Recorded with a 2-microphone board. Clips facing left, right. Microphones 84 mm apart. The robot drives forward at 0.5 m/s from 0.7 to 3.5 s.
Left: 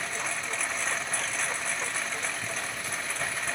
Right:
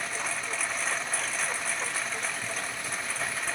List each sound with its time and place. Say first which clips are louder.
0.0 s a lawn mower: even; centre (ahead or behind)